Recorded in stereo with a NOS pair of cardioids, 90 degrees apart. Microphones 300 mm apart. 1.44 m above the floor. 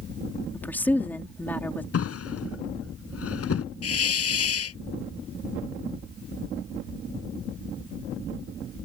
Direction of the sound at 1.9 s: 50° left.